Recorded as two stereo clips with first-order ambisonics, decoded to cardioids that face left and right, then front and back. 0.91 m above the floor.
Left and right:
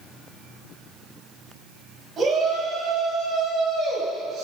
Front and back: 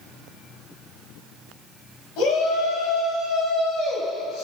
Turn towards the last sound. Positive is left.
turn(degrees=-35)